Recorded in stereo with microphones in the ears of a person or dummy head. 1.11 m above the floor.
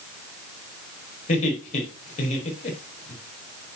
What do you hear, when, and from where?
1.3 s laughter: 45° left (ahead or behind), 4 m